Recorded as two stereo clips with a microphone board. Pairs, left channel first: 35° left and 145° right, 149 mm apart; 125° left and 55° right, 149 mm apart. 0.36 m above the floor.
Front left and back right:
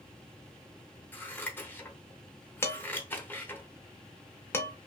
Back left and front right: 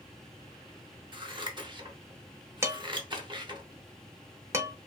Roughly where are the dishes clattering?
Ahead.